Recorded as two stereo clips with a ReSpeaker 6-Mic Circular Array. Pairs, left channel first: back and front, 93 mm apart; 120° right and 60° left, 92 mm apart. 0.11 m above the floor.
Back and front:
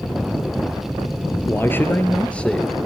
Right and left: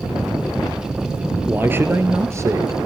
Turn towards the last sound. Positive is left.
turn(degrees=95)